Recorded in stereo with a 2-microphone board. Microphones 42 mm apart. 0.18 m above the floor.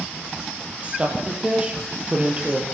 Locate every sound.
0.8 s a woman speaking: 25° right (ahead or behind), 6.5 m